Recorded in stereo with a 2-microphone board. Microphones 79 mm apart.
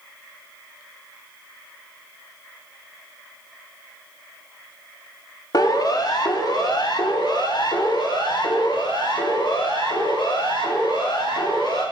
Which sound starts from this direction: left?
A siren, at 5.5 s.